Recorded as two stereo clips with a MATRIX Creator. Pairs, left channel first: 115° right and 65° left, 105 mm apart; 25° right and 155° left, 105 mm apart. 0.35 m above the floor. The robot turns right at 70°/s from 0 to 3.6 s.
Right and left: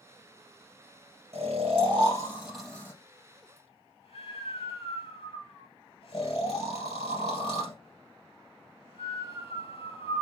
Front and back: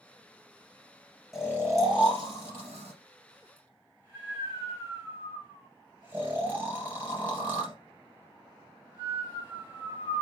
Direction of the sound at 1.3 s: 70° left.